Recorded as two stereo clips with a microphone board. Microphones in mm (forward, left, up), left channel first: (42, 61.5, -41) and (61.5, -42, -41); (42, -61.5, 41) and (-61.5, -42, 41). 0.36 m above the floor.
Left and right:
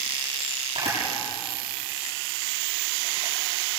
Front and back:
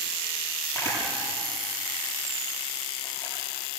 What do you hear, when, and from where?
0.8 s a camera shutter: 75° right, 9 m